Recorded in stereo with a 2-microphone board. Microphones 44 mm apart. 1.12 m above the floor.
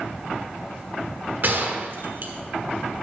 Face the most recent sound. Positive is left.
turn(degrees=-50)  # may be behind; listen again after turning